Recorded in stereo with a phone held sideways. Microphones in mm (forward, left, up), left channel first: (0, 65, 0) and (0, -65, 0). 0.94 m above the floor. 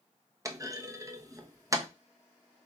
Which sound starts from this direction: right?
A clunk, at 0.5 s.